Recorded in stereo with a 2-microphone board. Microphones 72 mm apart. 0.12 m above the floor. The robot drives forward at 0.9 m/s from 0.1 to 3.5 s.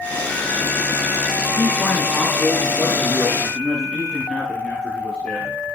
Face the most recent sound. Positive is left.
turn(degrees=15)  # may be behind; listen again after turning